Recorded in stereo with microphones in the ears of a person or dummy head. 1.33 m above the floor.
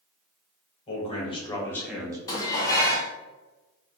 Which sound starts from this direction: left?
A man speaking, at 0.9 s.